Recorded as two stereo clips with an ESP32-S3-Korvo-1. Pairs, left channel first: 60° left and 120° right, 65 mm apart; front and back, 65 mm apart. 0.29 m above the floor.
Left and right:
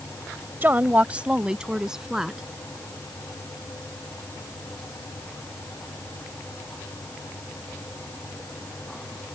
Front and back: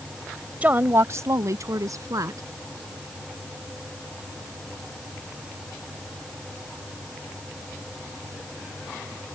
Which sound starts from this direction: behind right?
A woman speaking, at 0.6 s.